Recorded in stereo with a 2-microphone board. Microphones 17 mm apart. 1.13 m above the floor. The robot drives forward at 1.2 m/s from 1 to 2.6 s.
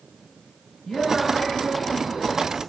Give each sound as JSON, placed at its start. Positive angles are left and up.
{"t": 0.8, "sound": "a woman speaking", "side_deg": 60, "distance_m": 6.5}